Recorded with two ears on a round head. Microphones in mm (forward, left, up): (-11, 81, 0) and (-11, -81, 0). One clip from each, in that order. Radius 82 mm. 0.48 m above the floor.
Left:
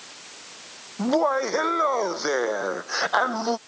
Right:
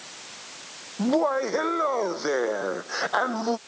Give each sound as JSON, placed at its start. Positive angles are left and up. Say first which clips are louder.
{"t": 1.0, "sound": "laughter", "louder": "left 1 dB", "side_deg": 35}